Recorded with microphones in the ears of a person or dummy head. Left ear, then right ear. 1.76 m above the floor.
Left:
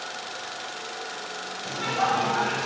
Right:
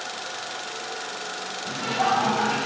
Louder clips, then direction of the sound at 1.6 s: Right 1 dB; 85° left.